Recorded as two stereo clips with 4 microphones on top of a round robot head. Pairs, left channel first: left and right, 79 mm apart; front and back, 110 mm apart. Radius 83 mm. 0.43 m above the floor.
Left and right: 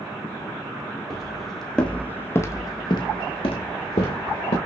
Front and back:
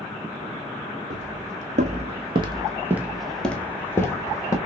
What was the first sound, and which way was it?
Footsteps, 175° right.